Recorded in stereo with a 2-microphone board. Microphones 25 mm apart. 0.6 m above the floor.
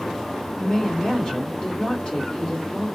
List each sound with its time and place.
0.6 s a woman speaking: 30° left (ahead or behind), 2 m